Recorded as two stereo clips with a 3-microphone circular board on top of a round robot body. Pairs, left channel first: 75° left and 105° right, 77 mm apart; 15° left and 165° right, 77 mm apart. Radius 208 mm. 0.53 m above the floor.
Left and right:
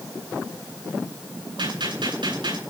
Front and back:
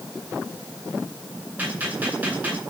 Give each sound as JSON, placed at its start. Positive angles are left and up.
{"t": 1.6, "sound": "a gunshot", "azimuth_deg": -95, "distance_m": 10.0}